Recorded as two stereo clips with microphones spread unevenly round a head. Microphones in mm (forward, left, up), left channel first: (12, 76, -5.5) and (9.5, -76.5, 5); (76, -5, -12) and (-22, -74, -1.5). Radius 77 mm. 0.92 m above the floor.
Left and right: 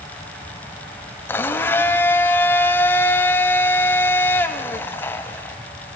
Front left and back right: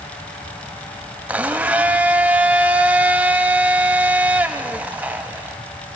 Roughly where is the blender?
Behind.